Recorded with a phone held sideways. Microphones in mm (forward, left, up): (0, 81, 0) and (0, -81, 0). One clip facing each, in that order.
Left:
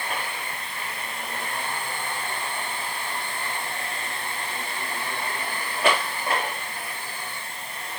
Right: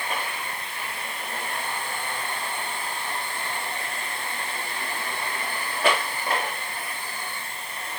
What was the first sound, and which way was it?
Only background noise.